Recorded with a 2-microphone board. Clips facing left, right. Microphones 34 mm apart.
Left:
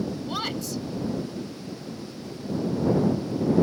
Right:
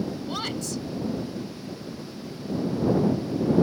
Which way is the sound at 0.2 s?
10° left (ahead or behind).